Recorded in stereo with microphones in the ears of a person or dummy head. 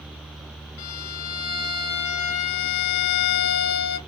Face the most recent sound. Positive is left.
turn(degrees=80)